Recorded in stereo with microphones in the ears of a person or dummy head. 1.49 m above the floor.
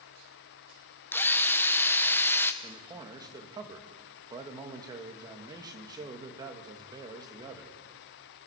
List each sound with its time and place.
1.1 s a drill: 10° left (ahead or behind), 1.0 m
2.6 s a man speaking: 20° right (ahead or behind), 2.5 m